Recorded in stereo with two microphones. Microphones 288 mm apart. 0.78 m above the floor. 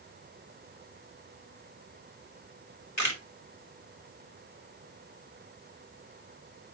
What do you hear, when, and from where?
3.0 s a camera shutter: 70° left (ahead or behind), 2.5 m